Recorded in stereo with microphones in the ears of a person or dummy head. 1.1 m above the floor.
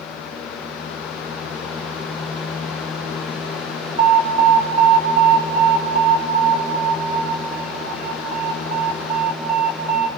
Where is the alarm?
40° right (ahead or behind), 3 m.